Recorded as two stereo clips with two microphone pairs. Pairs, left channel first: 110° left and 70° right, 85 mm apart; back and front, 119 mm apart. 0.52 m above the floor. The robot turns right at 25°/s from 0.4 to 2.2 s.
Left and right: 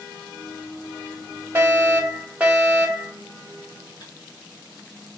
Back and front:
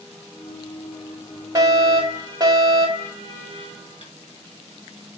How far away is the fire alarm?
About 2.5 m.